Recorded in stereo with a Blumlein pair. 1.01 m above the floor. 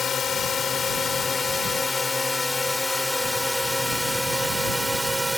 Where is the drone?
20° left; by 5.4 s straight ahead.